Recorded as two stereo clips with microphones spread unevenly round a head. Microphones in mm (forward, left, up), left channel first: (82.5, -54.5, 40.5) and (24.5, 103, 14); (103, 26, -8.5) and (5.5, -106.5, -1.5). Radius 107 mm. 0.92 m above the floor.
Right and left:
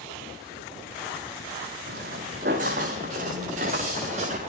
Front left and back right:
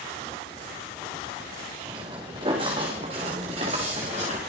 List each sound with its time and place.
1.9 s footsteps: 160° left, 4.5 m; by 4.4 s 175° left, 6.5 m